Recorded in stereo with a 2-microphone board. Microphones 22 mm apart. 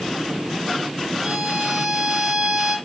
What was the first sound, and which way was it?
A violin, 20° right (ahead or behind).